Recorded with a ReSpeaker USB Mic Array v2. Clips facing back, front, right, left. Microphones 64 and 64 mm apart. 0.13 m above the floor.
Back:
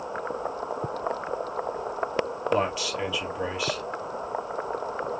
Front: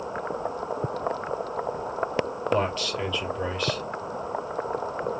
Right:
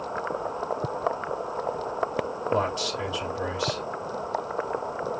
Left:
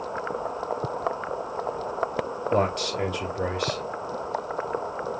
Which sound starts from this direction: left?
A man speaking, at 2.5 s.